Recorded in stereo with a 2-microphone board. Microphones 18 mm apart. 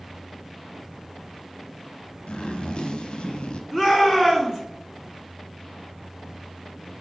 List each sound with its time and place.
2.3 s a zipper: 75° left (ahead or behind), 0.8 m
3.7 s a shout: 20° right (ahead or behind), 1.5 m